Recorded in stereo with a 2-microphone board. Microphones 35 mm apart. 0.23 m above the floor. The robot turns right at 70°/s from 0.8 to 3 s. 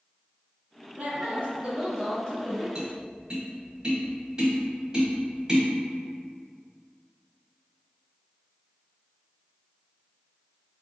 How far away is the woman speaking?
About 1.4 m.